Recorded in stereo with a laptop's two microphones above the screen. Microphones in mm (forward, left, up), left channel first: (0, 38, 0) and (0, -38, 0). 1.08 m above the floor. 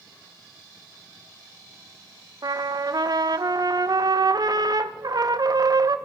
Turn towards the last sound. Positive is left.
turn(degrees=-55)  # may be behind; listen again after turning